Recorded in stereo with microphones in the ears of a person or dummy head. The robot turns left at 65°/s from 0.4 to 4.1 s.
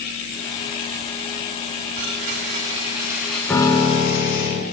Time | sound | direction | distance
1.9 | a blender | 90° right | 5.5 m
3.5 | a piano | 170° left | 2.5 m